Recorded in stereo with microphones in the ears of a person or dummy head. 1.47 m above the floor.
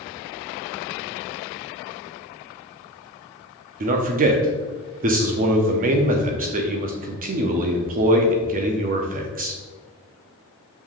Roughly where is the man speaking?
Right.